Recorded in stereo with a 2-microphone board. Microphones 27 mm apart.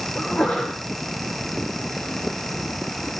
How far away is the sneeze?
About 8.5 m.